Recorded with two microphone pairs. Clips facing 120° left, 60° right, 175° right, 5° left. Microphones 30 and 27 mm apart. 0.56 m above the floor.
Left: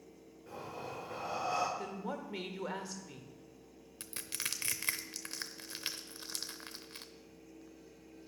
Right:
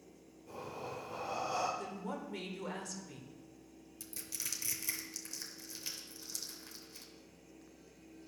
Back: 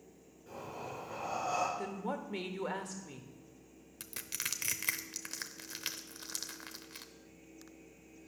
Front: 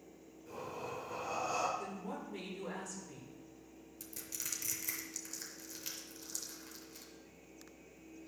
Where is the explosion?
I don't hear an explosion.